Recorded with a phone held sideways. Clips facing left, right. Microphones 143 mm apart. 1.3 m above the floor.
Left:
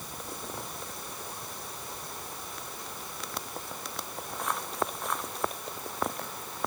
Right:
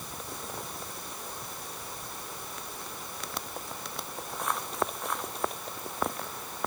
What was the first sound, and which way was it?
Only background noise.